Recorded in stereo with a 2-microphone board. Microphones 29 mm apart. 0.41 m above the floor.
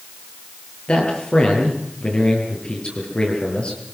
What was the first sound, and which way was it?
A man speaking, 40° left (ahead or behind).